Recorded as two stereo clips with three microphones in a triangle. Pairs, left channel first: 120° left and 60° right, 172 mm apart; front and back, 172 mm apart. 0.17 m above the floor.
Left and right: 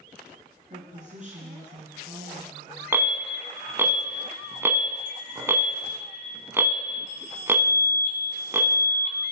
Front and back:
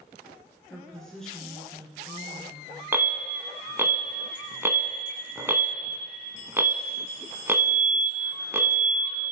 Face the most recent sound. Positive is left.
turn(degrees=-120)